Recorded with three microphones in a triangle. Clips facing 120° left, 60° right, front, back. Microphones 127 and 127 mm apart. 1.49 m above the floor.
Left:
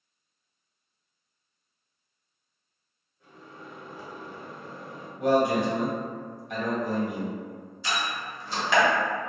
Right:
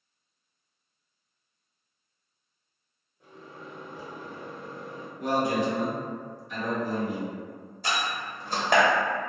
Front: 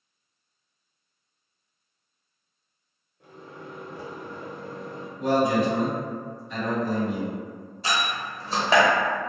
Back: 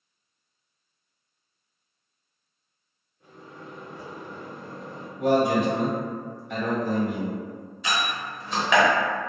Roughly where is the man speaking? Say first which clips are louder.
Left 4 dB, back 1 dB; behind left.